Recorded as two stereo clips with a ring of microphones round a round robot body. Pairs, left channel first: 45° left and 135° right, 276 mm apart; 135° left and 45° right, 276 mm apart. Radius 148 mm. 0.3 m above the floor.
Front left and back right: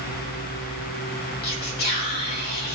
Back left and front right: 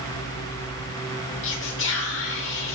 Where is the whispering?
95° left, 2 m.